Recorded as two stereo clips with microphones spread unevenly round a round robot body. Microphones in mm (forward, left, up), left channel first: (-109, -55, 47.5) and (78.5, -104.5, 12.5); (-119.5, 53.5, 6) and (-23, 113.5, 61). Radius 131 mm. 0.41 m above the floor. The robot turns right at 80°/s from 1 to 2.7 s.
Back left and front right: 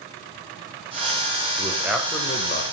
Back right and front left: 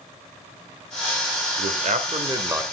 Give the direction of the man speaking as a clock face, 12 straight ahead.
11 o'clock.